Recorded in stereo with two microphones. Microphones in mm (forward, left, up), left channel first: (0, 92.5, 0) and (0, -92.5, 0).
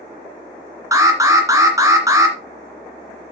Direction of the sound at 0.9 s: 20° right (ahead or behind).